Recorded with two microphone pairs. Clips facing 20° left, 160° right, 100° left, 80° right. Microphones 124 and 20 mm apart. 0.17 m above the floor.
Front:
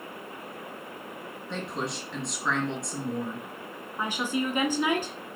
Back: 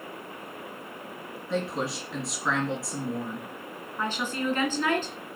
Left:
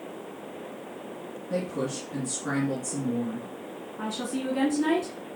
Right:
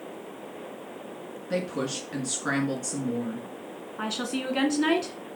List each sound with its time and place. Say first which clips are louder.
1.5 s a woman speaking: back 4 dB, right 1 dB; 75° right, 3 m
4.0 s a woman speaking: front 1 dB, right 1 dB; 55° right, 2 m